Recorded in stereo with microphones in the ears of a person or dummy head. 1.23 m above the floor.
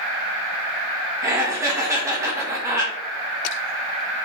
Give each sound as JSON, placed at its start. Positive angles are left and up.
{"t": 1.2, "sound": "laughter", "side_deg": -15, "distance_m": 1.1}